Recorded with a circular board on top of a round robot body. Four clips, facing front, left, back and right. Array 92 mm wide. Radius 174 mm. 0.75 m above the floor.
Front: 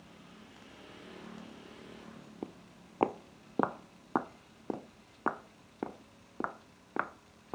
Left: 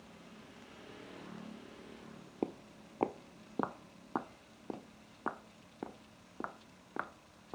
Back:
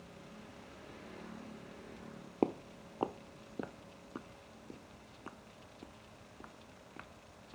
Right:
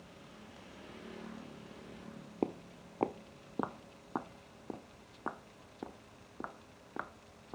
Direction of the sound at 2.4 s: 170° right.